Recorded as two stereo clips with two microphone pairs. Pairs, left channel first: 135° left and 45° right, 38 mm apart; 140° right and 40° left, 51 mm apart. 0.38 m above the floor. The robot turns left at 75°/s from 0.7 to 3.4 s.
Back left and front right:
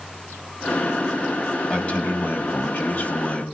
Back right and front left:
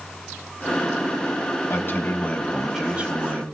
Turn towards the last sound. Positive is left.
turn(degrees=75)